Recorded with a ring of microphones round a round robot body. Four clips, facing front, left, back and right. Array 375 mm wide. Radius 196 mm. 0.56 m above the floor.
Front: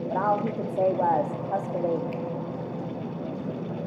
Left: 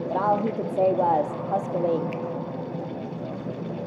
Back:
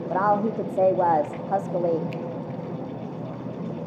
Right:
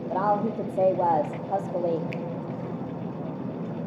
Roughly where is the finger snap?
Behind right.